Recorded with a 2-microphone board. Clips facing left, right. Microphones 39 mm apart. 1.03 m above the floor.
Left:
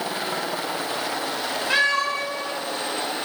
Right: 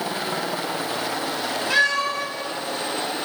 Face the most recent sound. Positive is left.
turn(degrees=20)  # may be behind; listen again after turning